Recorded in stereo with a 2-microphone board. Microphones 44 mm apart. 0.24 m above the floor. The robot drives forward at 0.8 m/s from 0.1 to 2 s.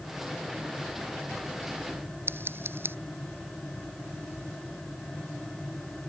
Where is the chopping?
No chopping in this recording.